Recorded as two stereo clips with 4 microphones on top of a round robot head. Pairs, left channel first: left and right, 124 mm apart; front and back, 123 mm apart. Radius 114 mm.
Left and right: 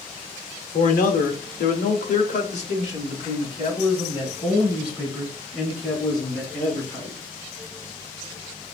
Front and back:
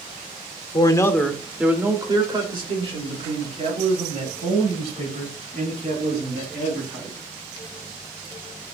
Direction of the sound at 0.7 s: 55° left.